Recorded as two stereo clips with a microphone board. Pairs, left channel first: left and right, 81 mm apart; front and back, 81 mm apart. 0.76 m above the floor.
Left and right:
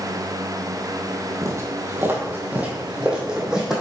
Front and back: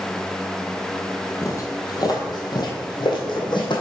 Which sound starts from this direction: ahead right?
Footsteps, at 1.4 s.